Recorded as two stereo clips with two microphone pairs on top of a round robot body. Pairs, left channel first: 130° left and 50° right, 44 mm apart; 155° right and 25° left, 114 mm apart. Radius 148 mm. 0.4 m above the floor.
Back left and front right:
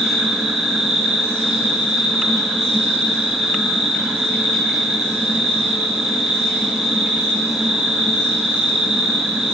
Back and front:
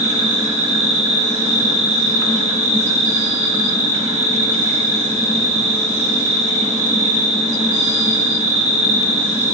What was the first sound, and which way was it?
An insect, 35° left.